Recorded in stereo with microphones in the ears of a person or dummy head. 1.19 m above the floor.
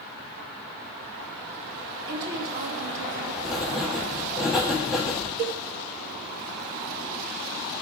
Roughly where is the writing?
Centre.